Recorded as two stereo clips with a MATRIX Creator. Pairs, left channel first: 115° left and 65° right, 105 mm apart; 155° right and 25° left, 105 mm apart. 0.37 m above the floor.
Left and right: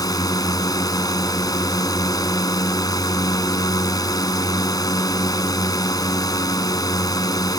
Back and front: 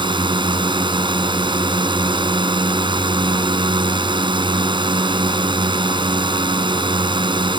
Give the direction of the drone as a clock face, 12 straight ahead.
10 o'clock.